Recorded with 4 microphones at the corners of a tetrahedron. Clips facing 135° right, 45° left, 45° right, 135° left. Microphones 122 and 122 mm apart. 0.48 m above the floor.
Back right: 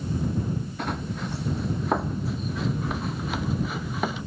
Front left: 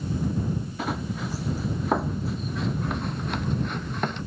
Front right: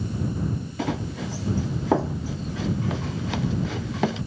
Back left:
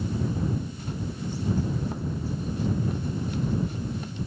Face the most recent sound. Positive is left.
turn(degrees=-50)